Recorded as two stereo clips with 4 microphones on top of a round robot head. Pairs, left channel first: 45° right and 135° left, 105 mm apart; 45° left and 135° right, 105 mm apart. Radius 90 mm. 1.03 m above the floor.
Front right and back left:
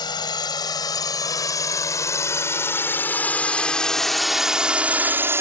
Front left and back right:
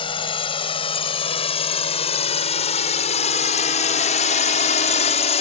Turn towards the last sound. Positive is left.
turn(degrees=65)